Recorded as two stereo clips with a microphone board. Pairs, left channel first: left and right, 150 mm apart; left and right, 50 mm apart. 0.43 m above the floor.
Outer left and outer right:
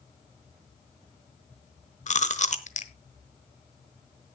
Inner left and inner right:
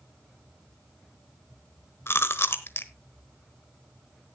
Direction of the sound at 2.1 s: 50° left (ahead or behind).